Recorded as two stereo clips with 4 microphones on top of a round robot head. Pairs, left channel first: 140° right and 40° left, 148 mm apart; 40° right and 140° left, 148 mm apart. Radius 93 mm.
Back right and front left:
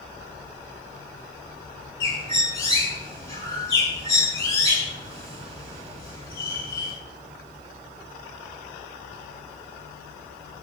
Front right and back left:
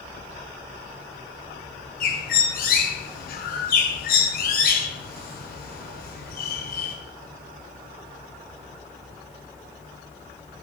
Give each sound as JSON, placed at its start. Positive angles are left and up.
{"t": 2.0, "sound": "a bird", "azimuth_deg": -70, "distance_m": 6.5}